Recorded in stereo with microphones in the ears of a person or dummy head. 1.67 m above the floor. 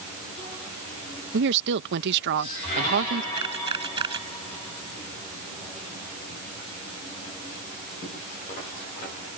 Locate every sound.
1.3 s a woman speaking: 60° right (ahead or behind)
3.4 s a camera shutter: 30° right (ahead or behind)